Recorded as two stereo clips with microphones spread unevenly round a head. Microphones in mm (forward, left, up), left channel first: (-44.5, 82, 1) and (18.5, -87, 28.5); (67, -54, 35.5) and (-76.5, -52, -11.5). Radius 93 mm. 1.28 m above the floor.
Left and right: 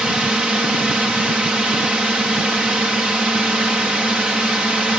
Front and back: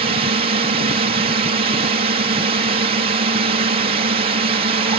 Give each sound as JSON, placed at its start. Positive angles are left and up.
{"t": 0.0, "sound": "a drone", "azimuth_deg": -155}